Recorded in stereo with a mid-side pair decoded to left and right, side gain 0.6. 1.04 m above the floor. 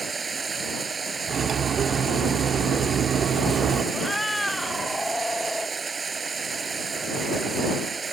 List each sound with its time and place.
0.0 s running water: 25° right
1.3 s cutlery clinking: 40° right
3.9 s a cat meowing: 10° left